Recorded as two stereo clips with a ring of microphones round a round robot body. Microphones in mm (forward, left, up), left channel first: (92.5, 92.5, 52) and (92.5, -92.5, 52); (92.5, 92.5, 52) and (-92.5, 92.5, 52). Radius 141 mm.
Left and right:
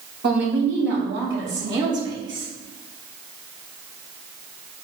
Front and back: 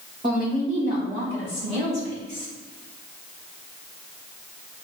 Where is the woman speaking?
115° right, 3 m; by 2.5 s 85° right, 3.5 m.